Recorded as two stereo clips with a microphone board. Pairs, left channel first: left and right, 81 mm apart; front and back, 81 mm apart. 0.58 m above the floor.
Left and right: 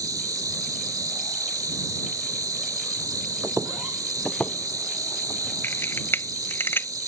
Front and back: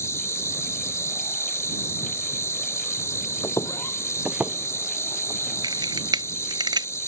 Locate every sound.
0.0 s an insect: 50° right
3.4 s footsteps: 35° right; by 5.5 s 145° left
5.6 s a camera shutter: 155° left